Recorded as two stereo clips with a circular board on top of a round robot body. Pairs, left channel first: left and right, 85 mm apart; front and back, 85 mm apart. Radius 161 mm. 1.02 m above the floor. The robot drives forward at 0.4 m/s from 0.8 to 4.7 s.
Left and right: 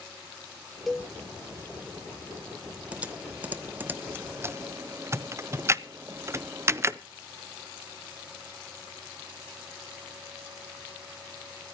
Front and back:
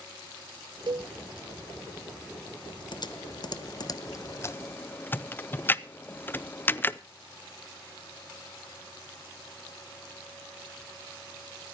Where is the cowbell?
175° left, 0.6 m.